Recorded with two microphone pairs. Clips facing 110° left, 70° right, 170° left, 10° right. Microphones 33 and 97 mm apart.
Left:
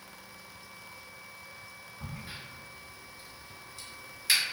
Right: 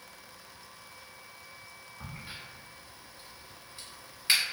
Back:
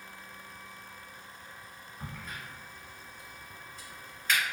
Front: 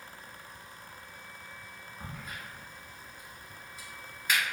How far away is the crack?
About 1.2 m.